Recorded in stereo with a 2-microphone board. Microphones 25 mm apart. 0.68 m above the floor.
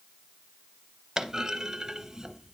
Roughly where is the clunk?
Right.